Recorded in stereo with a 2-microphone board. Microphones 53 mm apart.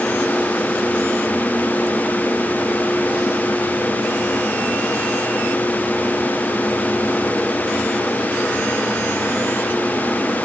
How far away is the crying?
No crying in this recording.